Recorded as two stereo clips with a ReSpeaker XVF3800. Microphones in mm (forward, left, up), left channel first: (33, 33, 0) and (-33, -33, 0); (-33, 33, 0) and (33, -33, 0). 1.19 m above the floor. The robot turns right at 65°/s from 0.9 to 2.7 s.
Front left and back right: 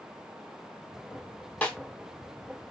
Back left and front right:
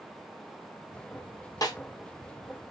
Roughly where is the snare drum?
Behind left.